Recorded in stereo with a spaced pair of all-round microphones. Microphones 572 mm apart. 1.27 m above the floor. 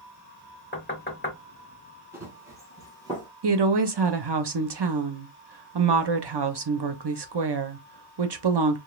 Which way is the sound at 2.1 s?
5° right (ahead or behind).